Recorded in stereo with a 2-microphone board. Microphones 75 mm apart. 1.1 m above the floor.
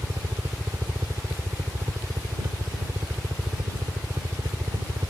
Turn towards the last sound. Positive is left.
turn(degrees=-70)  # may be behind; listen again after turning